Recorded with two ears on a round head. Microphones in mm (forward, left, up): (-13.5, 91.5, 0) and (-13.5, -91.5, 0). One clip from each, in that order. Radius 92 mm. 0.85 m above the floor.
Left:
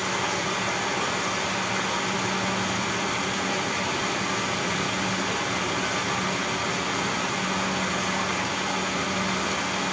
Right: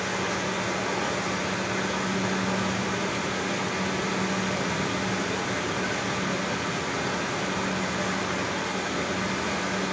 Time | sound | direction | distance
0.0 | running water | 40° left (ahead or behind) | 7.5 m